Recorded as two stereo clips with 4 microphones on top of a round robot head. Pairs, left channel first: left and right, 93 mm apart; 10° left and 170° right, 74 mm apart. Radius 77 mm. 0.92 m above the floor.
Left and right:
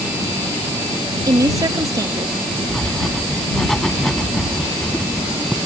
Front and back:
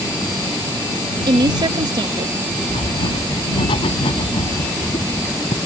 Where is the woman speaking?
145° right.